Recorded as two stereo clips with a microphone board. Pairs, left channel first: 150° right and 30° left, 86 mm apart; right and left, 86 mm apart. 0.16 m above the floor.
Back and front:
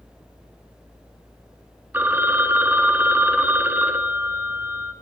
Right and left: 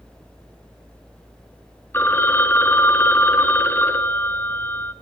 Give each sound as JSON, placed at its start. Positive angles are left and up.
{"t": 1.9, "sound": "a phone ringing", "azimuth_deg": -35, "distance_m": 1.1}